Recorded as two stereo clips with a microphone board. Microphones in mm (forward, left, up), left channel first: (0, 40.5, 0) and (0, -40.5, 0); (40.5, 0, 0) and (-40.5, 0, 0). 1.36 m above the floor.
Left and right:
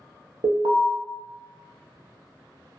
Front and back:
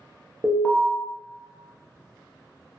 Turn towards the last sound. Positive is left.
turn(degrees=-80)